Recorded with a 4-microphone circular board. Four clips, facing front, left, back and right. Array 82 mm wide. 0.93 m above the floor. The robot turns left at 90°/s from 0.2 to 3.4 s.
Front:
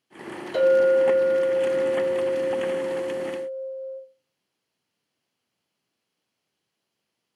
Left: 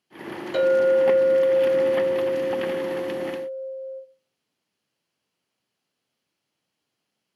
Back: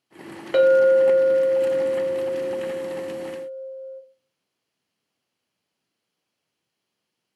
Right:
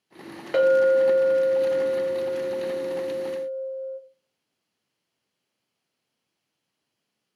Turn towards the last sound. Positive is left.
turn(degrees=-40)